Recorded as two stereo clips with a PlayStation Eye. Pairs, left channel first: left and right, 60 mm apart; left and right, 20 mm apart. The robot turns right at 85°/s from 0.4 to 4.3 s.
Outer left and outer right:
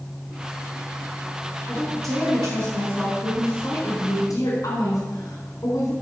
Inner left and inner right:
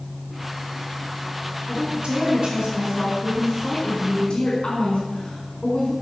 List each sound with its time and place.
1.7 s a woman speaking: 135° right, 4.5 m; by 5.9 s 90° left, 4.5 m